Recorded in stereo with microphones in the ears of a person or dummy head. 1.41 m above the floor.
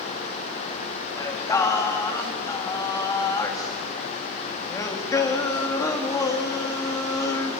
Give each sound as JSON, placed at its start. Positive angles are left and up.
{"t": 1.2, "sound": "singing", "side_deg": 20, "distance_m": 2.0}